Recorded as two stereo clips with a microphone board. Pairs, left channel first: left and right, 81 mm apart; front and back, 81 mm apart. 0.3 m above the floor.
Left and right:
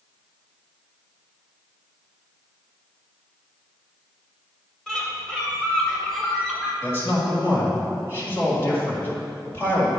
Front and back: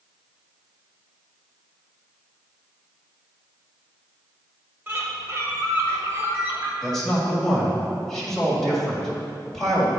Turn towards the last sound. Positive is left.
turn(degrees=80)